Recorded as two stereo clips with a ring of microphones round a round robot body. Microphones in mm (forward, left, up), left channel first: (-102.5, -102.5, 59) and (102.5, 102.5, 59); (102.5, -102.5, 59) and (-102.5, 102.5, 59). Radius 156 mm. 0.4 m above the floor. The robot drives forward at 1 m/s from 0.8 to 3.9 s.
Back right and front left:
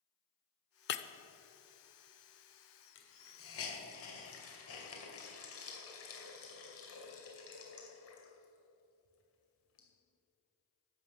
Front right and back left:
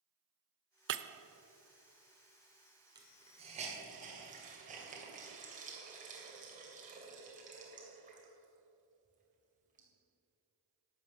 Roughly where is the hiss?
Behind right.